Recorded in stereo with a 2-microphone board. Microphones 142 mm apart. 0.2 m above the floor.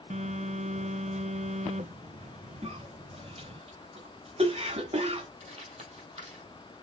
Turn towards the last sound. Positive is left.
turn(degrees=-50)  # may be behind; listen again after turning